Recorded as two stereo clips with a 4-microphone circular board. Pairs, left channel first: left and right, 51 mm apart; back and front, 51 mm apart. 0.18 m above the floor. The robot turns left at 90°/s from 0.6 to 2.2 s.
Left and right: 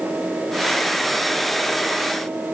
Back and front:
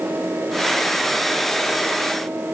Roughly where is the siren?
No siren in this recording.